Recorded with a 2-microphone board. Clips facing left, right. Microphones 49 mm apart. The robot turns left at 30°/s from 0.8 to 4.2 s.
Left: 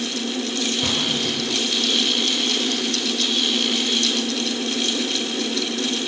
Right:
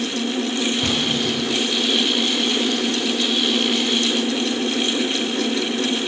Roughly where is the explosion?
Centre.